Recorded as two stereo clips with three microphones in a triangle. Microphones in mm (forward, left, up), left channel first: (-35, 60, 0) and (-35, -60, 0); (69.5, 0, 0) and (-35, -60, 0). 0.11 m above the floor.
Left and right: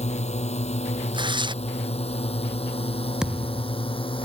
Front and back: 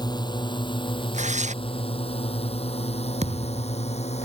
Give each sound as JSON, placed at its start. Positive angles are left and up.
{"t": 0.0, "sound": "a drone", "azimuth_deg": 80}
{"t": 1.1, "sound": "tearing paper", "azimuth_deg": -140}
{"t": 3.2, "sound": "a thud", "azimuth_deg": -175}